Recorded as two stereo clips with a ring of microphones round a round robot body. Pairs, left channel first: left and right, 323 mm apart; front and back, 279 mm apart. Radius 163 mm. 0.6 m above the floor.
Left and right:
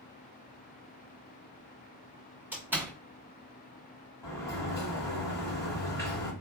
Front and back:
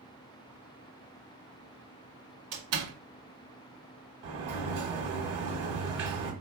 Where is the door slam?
175° right, 1.7 m.